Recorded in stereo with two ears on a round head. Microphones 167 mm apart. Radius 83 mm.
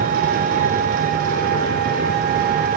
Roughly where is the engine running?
Right.